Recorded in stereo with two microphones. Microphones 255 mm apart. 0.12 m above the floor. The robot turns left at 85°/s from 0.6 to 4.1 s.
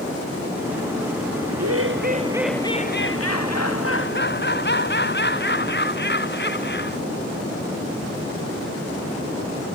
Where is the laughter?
95° right; by 7.0 s 40° left.